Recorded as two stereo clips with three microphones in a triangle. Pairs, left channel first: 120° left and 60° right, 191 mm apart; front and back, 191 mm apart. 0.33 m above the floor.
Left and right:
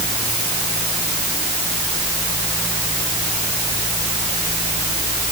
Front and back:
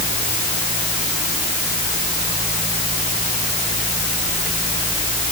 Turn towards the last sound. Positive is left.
No sound to turn to.